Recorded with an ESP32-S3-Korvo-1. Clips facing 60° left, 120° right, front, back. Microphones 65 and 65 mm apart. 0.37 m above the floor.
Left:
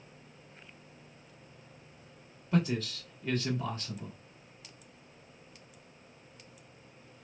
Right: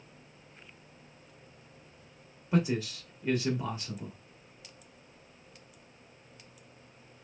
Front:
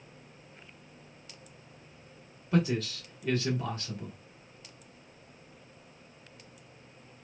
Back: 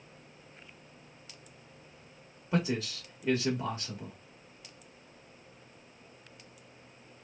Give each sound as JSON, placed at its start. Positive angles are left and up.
{"t": 2.5, "sound": "a man speaking", "azimuth_deg": -155, "distance_m": 1.2}